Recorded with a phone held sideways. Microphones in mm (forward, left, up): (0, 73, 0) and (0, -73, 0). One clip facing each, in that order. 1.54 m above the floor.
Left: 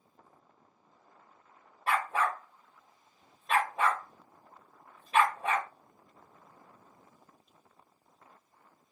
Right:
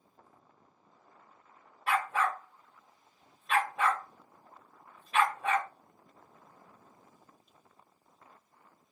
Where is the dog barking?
35° left (ahead or behind), 1.6 m.